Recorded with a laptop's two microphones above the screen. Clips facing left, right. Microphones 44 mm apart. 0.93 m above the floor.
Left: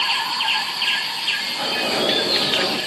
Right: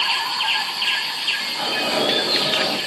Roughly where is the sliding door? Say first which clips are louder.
Even; centre.